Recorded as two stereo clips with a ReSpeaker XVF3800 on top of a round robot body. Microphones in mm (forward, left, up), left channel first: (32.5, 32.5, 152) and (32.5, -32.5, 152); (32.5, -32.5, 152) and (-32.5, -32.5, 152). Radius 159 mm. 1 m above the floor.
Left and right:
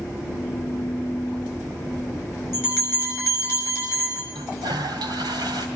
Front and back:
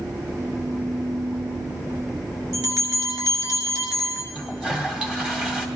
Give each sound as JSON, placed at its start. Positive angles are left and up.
{"t": 2.5, "sound": "a bell", "azimuth_deg": 150, "distance_m": 6.0}
{"t": 4.3, "sound": "a toilet flushing", "azimuth_deg": -105, "distance_m": 2.5}